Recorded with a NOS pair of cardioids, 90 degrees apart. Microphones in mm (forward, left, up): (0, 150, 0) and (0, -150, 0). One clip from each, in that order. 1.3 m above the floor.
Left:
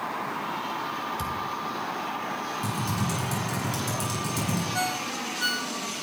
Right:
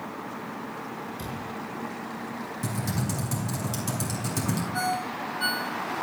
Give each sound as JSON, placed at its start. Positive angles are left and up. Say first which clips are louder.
{"t": 1.2, "sound": "a thud", "louder": "left 6 dB", "azimuth_deg": 40, "distance_m": 3.5}
{"t": 2.6, "sound": "typing on a keyboard", "louder": "left 3 dB", "azimuth_deg": -15, "distance_m": 6.0}
{"t": 4.7, "sound": "a ringtone", "louder": "right 2 dB", "azimuth_deg": 5, "distance_m": 2.0}